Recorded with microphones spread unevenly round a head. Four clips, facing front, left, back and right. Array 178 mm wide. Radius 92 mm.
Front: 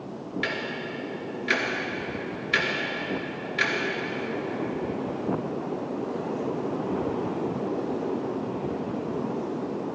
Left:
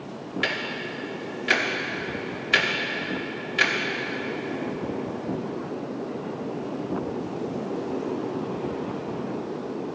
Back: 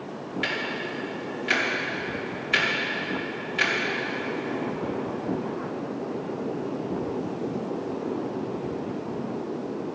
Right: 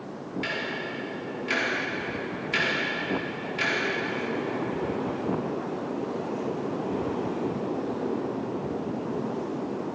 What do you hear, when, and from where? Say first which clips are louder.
0.4 s ticking: left 2 dB, back 2 dB; 90° left, 1.4 m